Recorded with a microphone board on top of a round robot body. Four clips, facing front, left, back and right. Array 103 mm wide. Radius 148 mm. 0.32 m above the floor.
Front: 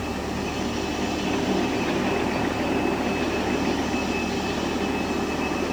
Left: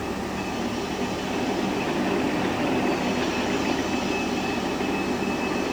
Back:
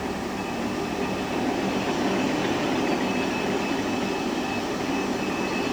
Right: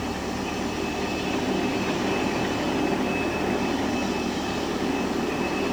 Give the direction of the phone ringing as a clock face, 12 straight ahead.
I don't hear a phone ringing.